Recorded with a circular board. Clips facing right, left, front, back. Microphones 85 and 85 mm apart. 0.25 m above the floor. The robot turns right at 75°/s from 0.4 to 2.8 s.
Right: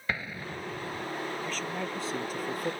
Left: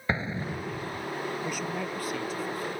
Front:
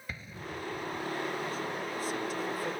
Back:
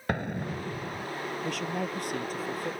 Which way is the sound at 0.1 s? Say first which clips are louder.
Left 4 dB, back 10 dB; 155° left.